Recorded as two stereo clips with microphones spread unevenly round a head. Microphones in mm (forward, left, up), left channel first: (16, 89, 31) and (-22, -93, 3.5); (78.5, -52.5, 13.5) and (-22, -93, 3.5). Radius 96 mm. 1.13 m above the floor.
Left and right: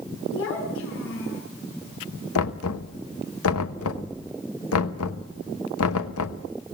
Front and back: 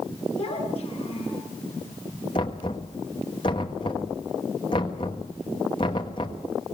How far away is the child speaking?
About 9 m.